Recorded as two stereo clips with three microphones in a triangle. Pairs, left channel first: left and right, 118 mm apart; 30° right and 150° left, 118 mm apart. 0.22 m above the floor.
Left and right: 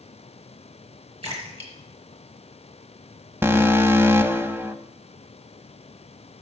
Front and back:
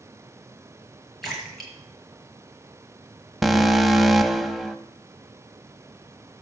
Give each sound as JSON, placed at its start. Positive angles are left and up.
{"t": 1.2, "sound": "a splash", "azimuth_deg": -120, "distance_m": 5.5}
{"t": 3.4, "sound": "an alarm", "azimuth_deg": -120, "distance_m": 0.9}